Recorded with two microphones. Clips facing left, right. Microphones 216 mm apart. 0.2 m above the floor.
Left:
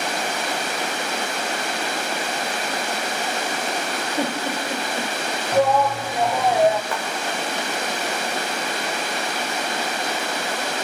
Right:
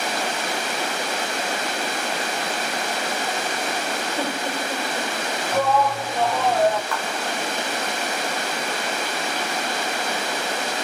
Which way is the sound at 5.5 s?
10° left (ahead or behind).